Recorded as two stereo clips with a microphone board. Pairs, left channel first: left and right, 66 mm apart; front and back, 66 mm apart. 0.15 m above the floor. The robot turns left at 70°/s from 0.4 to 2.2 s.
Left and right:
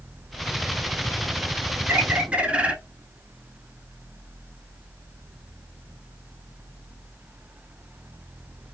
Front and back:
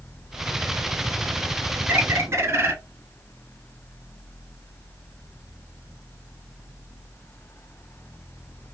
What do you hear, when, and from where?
1.9 s a bird: 130° right, 0.6 m; by 2.8 s 150° right, 0.6 m